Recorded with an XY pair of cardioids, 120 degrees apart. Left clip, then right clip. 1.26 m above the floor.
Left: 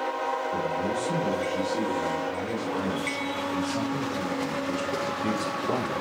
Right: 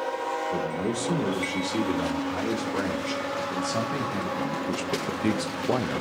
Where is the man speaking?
50° right, 3.5 m; by 6.0 s 20° right, 0.7 m.